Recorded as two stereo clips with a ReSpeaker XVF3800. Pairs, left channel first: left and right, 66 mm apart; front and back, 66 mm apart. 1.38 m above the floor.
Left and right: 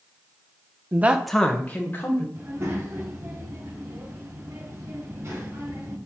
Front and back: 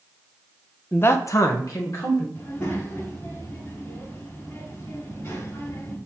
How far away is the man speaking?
About 0.6 m.